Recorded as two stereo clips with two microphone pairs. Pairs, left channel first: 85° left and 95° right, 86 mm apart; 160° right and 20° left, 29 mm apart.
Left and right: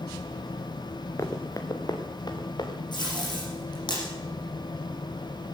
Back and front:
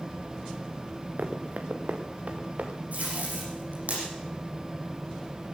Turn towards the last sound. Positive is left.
turn(degrees=55)